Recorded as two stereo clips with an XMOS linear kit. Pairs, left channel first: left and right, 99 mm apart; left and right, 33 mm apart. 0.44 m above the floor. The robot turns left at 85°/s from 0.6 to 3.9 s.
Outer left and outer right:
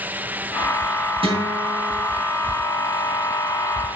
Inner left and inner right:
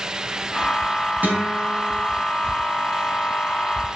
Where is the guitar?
110° right, 3.5 m; by 2.0 s straight behind, 3.5 m.